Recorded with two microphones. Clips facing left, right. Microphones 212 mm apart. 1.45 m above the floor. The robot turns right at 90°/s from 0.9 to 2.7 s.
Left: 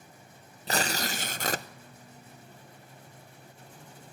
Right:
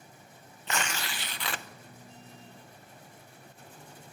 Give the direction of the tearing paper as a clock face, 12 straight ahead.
10 o'clock.